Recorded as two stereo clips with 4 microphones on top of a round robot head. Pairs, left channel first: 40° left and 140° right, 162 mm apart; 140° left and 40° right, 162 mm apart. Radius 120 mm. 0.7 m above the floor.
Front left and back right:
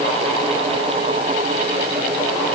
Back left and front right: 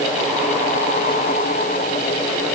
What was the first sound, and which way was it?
Only background noise.